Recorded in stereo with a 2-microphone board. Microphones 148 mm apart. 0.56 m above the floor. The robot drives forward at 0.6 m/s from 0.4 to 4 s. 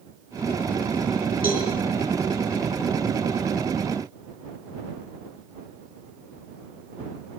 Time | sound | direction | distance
1.4 | a cowbell | 80° left | 8.5 m